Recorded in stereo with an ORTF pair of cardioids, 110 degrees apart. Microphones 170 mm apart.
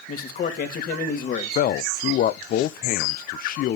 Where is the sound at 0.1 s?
55° left, 2.5 m.